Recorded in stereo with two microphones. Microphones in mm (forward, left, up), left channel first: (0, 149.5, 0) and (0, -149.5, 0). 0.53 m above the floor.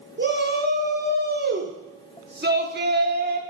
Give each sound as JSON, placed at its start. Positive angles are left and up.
{"t": 0.2, "sound": "a shout", "side_deg": -35, "distance_m": 1.0}